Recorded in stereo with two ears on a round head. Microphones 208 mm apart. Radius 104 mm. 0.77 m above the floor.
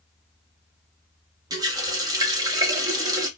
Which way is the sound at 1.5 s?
15° right (ahead or behind).